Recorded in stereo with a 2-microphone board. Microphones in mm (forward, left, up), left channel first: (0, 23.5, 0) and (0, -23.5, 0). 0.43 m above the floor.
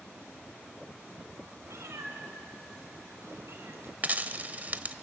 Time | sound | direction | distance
1.7 | a cat meowing | 80° right | 1.7 m
4.0 | a dropped coin | 30° right (ahead or behind) | 0.8 m